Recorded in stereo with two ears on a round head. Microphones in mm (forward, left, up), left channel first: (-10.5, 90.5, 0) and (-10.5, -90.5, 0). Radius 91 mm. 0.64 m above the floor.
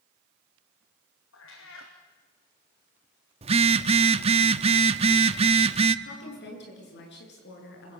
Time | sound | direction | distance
1.3 | a cat meowing | 75° left (ahead or behind) | 4.5 m
3.4 | a phone buzzing | 30° right (ahead or behind) | 0.8 m
6.0 | a woman speaking | 60° left (ahead or behind) | 8.5 m